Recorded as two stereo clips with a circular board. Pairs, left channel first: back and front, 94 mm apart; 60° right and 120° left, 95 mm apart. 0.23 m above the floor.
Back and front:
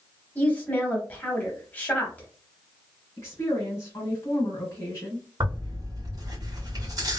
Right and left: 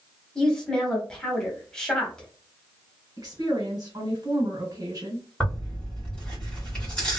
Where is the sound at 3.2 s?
135° left, 1.4 m.